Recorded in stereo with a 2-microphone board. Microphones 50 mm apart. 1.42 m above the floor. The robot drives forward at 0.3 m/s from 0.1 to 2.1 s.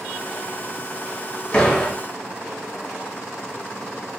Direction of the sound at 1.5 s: 25° left (ahead or behind).